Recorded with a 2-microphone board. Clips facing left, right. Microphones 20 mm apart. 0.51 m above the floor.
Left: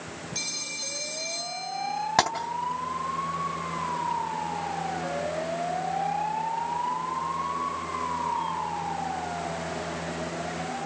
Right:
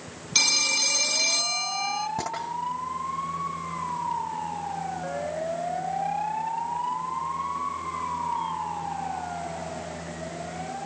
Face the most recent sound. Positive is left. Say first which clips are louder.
# left 8 dB
turn(degrees=70)  # may be behind; listen again after turning